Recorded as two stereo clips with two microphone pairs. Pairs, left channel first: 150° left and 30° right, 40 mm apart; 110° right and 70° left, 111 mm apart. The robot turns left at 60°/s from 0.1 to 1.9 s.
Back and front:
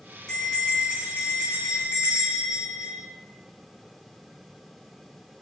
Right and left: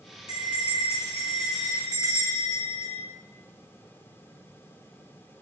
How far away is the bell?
About 3.5 m.